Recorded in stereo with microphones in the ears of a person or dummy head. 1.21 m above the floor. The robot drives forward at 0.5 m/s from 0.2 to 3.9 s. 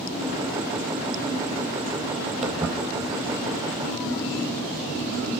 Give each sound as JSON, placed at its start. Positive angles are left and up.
{"t": 2.4, "sound": "footsteps", "side_deg": 5, "distance_m": 2.5}